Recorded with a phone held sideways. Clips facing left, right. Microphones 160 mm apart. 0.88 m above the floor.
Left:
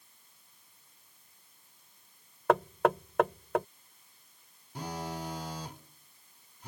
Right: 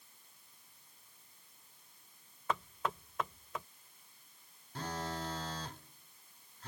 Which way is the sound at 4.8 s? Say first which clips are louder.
Left 2 dB; 15° left (ahead or behind).